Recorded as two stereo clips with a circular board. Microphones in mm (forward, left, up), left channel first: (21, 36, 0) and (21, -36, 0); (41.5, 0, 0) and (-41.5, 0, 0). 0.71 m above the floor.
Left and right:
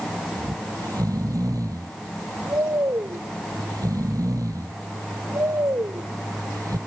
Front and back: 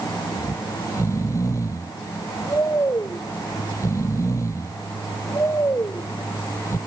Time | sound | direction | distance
0.4 | snoring | 50° right | ?